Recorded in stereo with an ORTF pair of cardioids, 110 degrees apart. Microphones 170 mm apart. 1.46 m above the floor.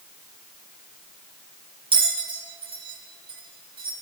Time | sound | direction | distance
1.9 | a bell | 35° right | 6.5 m